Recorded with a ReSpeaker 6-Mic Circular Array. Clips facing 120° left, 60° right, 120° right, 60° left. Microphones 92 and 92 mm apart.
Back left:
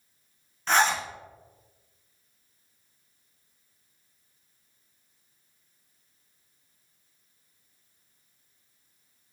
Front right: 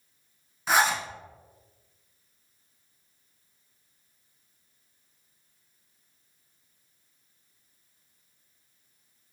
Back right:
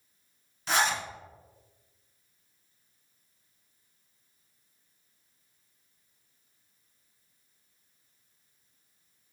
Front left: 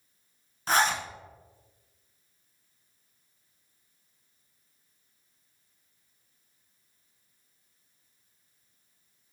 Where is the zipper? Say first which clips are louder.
Even, front left 2 dB; 20° left, 0.7 m.